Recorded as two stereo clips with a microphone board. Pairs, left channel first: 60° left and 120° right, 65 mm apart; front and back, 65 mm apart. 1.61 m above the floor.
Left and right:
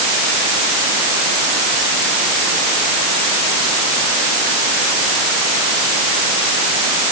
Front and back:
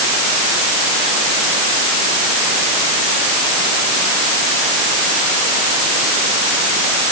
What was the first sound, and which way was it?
Only background noise.